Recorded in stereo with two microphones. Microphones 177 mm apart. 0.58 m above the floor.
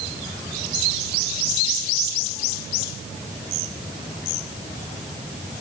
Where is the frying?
I don't hear frying.